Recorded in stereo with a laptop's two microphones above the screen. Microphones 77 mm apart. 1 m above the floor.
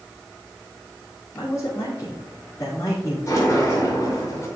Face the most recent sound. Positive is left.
turn(degrees=40)  # may be behind; listen again after turning